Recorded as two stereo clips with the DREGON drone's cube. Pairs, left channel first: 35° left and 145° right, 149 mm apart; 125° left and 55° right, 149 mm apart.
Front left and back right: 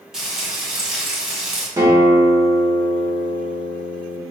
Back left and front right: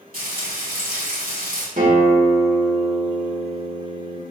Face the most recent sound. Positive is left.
turn(degrees=-80)